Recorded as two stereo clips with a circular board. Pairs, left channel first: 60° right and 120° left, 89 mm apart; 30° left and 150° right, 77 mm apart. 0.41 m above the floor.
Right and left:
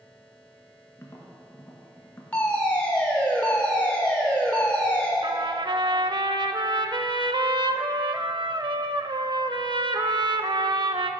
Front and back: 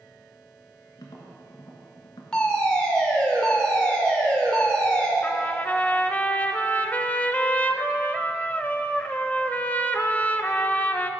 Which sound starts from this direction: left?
A trumpet, at 5.2 s.